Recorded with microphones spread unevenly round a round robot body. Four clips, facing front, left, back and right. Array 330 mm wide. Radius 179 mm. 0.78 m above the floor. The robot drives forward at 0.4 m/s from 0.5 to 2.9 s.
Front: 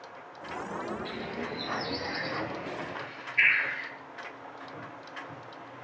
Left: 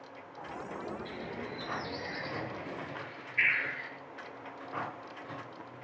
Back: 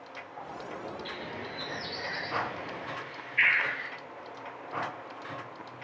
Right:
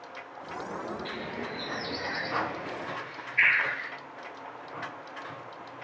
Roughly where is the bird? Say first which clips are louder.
Right 4 dB, front 3 dB; right.